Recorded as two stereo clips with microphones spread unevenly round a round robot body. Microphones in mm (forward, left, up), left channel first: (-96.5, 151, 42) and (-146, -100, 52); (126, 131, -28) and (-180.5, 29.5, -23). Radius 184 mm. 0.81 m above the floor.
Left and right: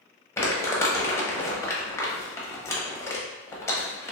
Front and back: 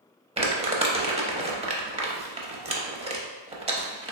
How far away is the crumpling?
About 0.6 m.